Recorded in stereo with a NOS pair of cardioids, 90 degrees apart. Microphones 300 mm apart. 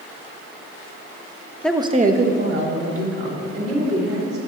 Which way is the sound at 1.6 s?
5° left.